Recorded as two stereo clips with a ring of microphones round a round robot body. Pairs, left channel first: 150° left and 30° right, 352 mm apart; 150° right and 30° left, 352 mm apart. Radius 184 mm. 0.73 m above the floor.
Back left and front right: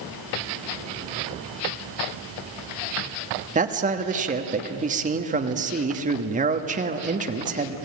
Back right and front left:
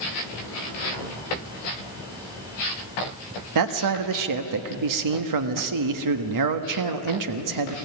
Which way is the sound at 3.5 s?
35° left.